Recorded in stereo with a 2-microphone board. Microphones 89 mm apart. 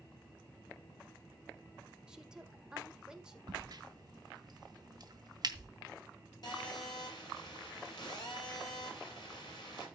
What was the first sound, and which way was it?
A woman speaking, 10° right (ahead or behind).